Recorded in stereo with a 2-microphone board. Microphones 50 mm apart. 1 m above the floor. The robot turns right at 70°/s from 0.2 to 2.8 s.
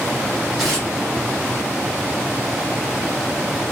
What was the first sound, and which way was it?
Tearing paper, 5° right (ahead or behind).